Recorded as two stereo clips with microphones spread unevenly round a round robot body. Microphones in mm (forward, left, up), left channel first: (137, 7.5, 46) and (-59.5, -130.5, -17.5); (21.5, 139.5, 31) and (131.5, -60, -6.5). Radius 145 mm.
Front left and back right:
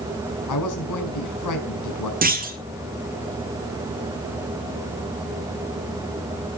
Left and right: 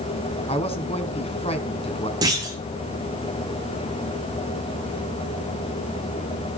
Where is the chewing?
No chewing in this recording.